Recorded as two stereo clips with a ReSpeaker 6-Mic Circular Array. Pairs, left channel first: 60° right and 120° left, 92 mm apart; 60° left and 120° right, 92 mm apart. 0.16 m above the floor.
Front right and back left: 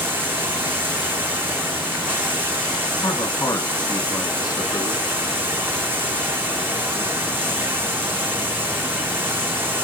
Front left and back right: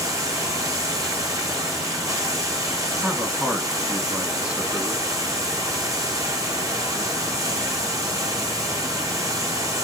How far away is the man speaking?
About 1.4 m.